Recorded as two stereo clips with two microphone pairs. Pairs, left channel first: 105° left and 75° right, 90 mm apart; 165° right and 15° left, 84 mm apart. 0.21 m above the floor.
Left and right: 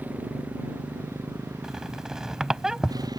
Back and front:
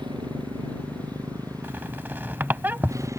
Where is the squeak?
10° right.